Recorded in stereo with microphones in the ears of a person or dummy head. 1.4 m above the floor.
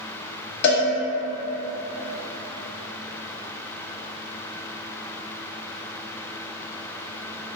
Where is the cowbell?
55° left (ahead or behind), 1.7 m.